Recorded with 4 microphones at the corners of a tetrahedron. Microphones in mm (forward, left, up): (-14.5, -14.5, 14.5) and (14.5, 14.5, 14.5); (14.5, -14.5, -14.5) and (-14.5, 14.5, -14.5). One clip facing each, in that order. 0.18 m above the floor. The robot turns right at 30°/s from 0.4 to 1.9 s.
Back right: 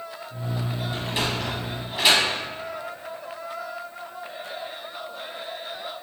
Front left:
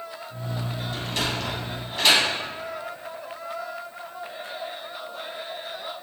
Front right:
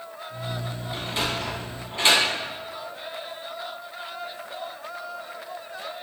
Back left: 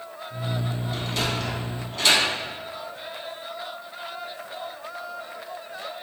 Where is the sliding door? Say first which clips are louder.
Back right 1 dB, front right 1 dB; 90° right, 0.7 m; by 2.2 s 65° right, 0.7 m.